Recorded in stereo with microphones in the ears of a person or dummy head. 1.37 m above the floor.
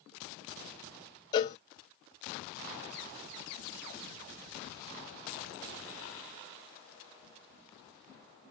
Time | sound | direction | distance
1.3 | a cowbell | 25° left (ahead or behind) | 0.5 m